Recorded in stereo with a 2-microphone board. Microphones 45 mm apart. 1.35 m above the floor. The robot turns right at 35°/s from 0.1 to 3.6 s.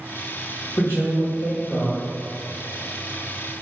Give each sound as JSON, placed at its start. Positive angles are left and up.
{"t": 0.8, "sound": "a man speaking", "azimuth_deg": 115, "distance_m": 0.7}